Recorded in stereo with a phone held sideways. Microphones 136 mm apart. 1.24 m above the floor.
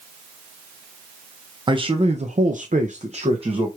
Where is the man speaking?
35° right (ahead or behind), 0.6 m; by 3.7 s 45° right (ahead or behind), 0.8 m.